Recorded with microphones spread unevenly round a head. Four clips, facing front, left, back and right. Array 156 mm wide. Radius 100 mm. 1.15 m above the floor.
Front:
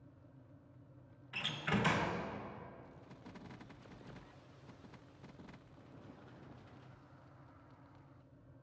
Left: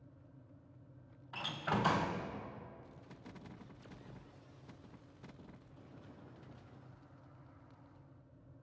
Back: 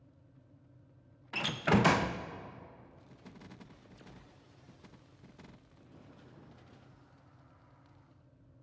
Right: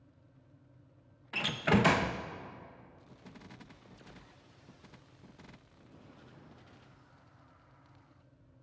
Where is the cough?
No cough in this recording.